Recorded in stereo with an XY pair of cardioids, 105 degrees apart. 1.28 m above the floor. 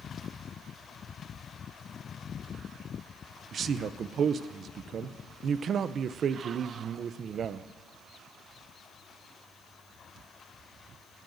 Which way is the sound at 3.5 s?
50° right.